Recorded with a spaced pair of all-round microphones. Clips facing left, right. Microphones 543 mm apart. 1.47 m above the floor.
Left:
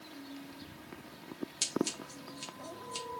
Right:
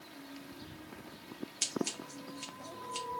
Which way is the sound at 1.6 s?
60° left (ahead or behind).